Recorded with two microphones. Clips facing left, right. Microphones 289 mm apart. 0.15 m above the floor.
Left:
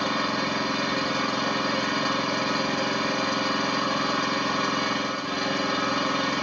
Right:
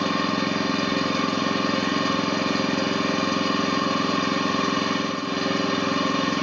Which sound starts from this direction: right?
An engine running, at 0.0 s.